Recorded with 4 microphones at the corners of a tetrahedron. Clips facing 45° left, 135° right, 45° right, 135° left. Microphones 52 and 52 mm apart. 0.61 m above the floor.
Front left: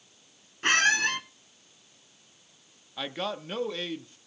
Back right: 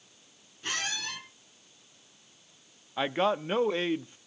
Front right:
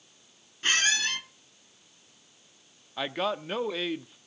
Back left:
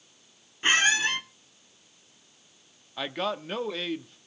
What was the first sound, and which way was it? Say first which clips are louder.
A squeak: front left 11 dB, back left 4 dB; 65° left.